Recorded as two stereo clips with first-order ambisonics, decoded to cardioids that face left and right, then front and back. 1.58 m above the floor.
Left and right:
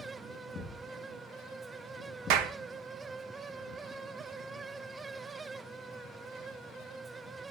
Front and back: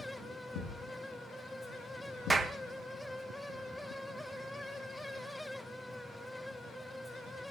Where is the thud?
20° left, 6.5 m.